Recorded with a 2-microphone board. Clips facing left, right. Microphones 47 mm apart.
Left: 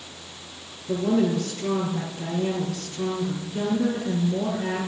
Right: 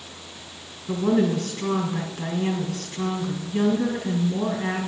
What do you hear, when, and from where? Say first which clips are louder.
0.9 s a woman speaking: right 1 dB; 70° right (ahead or behind), 4 m